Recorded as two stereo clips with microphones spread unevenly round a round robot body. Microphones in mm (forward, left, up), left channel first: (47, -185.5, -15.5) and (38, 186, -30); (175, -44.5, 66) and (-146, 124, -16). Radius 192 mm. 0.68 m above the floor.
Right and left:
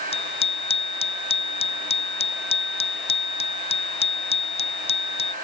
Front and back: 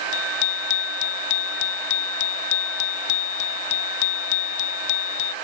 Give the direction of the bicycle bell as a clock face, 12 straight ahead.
12 o'clock.